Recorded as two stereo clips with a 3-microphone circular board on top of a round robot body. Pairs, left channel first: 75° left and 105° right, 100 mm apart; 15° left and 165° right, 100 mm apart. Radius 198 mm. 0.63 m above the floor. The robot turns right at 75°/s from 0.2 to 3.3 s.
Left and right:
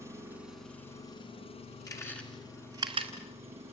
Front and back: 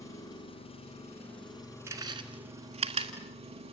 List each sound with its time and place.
0.0 s an engine running: 40° right, 5 m; by 3.7 s 170° right, 5 m
1.9 s chewing: 130° left, 1.5 m; by 3.1 s 135° right, 1.5 m